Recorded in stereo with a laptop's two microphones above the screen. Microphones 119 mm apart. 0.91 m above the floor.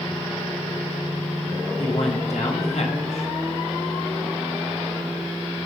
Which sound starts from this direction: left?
A man speaking, at 1.8 s.